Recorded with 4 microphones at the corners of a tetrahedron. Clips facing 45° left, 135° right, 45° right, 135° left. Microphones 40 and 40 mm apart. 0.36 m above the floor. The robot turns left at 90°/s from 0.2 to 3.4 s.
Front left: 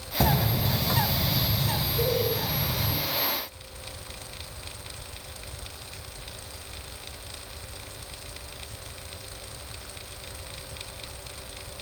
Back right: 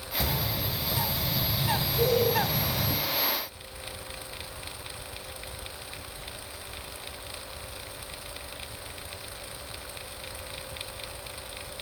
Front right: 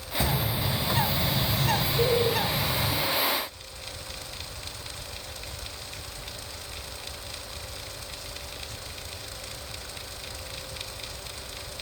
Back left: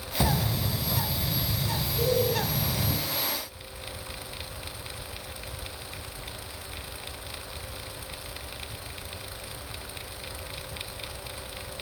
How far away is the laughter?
About 1.3 m.